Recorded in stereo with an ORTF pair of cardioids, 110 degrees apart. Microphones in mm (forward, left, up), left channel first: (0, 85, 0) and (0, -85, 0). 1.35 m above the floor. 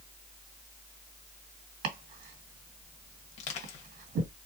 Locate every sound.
1.8 s chopping: 65° right, 2 m
3.4 s crushing: 45° left, 1.4 m